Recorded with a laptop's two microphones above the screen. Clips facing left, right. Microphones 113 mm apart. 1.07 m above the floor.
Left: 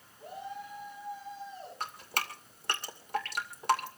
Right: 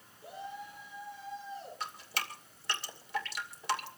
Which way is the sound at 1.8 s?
50° left (ahead or behind).